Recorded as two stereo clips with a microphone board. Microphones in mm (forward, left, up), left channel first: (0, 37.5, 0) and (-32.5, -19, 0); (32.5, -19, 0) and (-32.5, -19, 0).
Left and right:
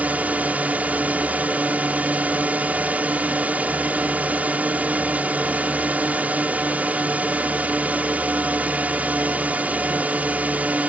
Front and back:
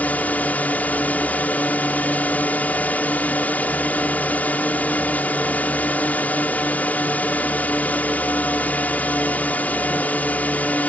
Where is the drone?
55° right.